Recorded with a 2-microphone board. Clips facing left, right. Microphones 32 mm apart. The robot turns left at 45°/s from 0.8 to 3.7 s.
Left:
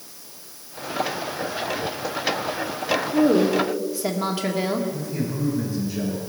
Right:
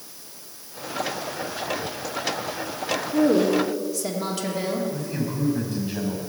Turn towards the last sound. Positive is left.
turn(degrees=-65)  # may be behind; listen again after turning